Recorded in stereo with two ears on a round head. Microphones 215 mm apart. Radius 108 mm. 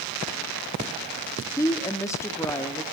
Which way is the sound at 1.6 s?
15° left (ahead or behind).